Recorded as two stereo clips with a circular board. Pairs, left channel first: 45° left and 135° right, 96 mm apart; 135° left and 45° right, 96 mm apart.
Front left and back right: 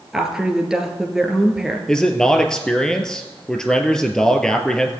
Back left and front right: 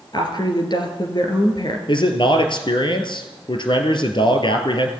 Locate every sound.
0.1 s a woman speaking: 145° left, 2.5 m
1.9 s a man speaking: 125° left, 2.0 m